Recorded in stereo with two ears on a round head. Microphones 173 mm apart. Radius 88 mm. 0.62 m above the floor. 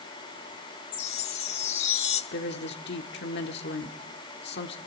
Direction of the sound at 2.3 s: 60° left (ahead or behind).